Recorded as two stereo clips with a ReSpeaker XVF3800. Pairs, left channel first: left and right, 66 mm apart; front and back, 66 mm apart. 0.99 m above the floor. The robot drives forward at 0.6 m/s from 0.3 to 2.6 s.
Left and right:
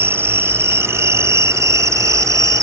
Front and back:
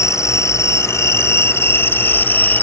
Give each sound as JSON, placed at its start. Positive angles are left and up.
{"t": 0.0, "sound": "an insect", "azimuth_deg": -40}